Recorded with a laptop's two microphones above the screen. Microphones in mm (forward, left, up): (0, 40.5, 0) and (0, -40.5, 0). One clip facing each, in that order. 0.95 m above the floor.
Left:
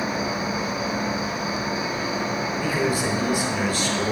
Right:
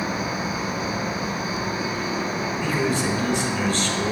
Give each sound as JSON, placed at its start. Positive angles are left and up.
{"t": 0.0, "sound": "an insect", "side_deg": 10, "distance_m": 3.5}
{"t": 2.6, "sound": "a man speaking", "side_deg": 5, "distance_m": 0.9}